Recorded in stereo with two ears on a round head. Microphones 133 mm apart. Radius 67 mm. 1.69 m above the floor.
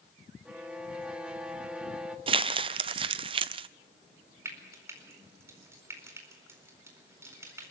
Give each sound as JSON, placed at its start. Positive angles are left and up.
{"t": 0.5, "sound": "a violin", "side_deg": -5, "distance_m": 1.6}
{"t": 2.3, "sound": "crumpling", "side_deg": -35, "distance_m": 0.5}
{"t": 4.5, "sound": "frying", "side_deg": -20, "distance_m": 4.5}